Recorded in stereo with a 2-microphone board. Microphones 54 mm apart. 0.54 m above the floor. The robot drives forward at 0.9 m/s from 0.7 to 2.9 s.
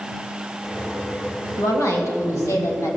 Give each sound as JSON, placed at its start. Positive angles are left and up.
{"t": 1.6, "sound": "a woman speaking", "side_deg": 75, "distance_m": 3.5}